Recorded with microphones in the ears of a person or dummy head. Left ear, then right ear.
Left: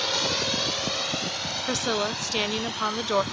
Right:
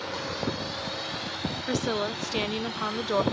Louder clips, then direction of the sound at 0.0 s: Left 7 dB; 70° left (ahead or behind).